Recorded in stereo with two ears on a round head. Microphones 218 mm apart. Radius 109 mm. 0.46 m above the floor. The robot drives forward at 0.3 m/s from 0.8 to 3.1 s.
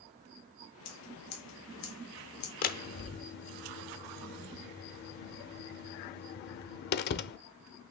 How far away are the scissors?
About 2.5 m.